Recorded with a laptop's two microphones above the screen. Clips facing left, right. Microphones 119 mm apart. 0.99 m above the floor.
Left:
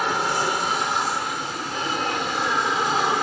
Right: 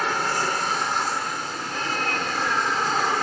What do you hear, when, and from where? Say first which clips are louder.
0.0 s an aircraft: left 2 dB; 10° left (ahead or behind)